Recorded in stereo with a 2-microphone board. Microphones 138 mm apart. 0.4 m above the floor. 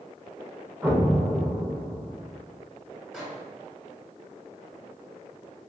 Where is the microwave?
5° right (ahead or behind), 1.8 m.